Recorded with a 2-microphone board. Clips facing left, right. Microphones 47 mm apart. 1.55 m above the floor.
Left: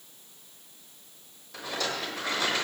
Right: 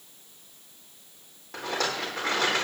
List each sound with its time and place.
1.5 s a rattle: 50° right (ahead or behind), 3.5 m